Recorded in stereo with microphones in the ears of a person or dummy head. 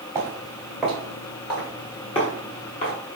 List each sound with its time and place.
0.1 s footsteps: 20° right (ahead or behind), 1.4 m; by 3.0 s 45° left (ahead or behind), 1.7 m